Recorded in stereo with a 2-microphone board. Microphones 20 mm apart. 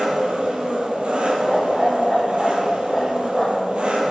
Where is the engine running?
70° right (ahead or behind), 3.5 m.